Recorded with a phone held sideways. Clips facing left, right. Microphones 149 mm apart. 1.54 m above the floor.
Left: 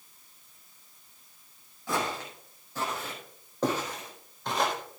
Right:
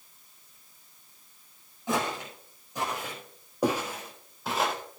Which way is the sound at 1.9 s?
20° right (ahead or behind).